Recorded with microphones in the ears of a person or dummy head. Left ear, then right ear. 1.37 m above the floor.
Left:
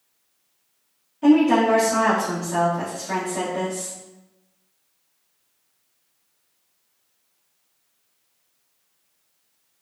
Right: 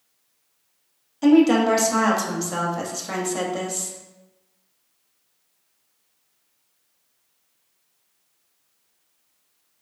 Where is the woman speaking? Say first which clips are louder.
Even; 90° right, 1.0 m.